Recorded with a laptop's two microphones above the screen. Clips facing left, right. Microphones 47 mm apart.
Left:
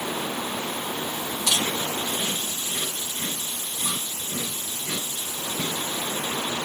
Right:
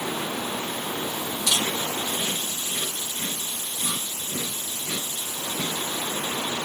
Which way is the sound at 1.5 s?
40° left (ahead or behind).